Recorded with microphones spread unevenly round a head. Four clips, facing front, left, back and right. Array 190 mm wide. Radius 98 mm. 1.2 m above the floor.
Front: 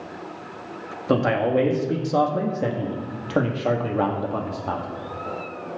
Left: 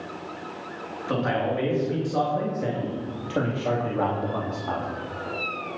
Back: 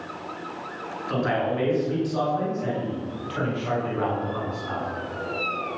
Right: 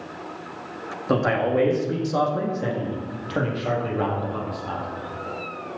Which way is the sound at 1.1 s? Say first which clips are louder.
Right 4 dB, front 5 dB; 30° right.